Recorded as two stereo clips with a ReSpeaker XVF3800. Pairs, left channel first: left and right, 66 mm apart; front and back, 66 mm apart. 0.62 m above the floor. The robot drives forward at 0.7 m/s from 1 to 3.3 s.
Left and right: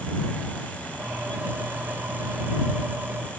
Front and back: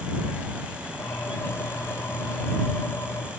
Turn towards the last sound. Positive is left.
No sound to turn to.